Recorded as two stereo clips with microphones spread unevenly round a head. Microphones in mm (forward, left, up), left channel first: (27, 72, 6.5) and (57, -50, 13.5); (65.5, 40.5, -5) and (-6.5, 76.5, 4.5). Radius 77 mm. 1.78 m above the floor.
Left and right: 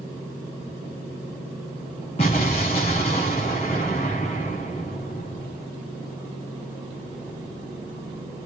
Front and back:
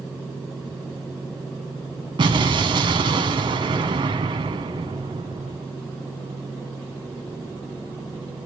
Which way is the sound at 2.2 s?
155° left.